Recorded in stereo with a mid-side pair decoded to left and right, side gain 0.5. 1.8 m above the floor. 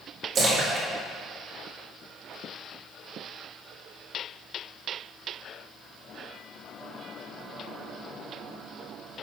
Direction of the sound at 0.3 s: 50° right.